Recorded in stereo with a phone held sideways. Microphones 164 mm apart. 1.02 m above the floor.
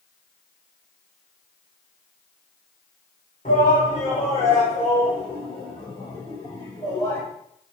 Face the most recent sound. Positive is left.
turn(degrees=25)  # may be behind; listen again after turning